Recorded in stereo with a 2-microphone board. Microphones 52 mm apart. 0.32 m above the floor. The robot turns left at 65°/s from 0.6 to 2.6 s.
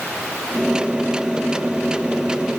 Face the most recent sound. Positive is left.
No sound to turn to.